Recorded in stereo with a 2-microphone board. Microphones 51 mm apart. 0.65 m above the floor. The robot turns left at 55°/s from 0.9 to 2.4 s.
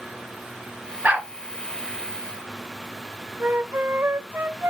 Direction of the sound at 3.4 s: 50° right (ahead or behind).